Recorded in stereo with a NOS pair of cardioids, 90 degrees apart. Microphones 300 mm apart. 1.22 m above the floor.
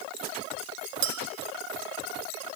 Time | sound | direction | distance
1.0 | a clink | 70° right | 0.7 m